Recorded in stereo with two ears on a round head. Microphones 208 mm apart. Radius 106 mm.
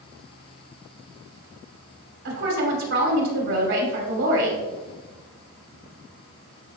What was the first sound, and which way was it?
A woman speaking, 60° right (ahead or behind).